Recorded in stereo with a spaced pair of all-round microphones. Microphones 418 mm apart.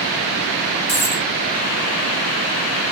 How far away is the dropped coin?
About 6.5 m.